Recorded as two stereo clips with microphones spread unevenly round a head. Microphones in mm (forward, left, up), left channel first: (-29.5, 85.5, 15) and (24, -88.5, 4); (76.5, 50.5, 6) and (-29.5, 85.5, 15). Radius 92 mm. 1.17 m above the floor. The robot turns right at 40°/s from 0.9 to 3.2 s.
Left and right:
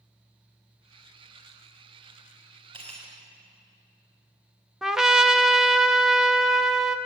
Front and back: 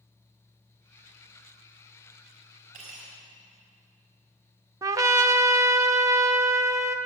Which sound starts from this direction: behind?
A trumpet, at 4.8 s.